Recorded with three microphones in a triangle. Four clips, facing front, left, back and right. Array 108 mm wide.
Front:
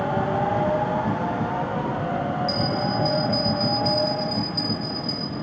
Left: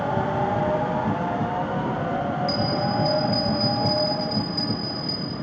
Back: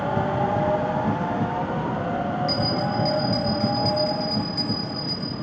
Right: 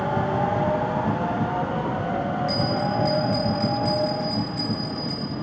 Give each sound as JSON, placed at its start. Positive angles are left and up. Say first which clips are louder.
{"t": 2.5, "sound": "a bell", "louder": "even, even", "azimuth_deg": -115, "distance_m": 6.0}